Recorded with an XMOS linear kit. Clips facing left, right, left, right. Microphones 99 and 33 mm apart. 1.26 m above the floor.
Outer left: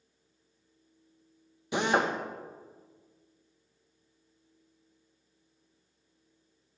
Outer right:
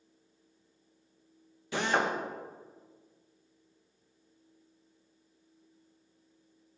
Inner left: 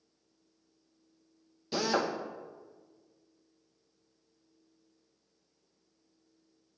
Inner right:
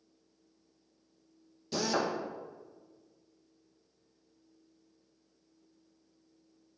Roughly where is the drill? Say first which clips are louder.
Outer left 2 dB, inner left 1 dB; centre.